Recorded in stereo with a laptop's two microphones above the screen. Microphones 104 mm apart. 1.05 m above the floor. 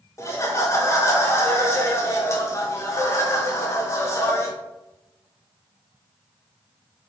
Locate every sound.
0.2 s laughter: 25° left (ahead or behind), 0.7 m